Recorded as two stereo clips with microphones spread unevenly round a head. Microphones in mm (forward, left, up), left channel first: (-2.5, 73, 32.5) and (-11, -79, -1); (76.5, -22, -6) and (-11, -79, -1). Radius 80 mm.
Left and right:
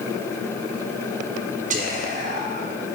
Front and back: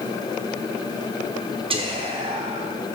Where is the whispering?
135° right, 0.9 m.